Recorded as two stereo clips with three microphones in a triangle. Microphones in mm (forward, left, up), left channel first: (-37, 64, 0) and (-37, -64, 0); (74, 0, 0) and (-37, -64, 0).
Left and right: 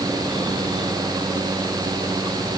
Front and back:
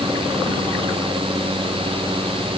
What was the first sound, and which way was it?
Only background noise.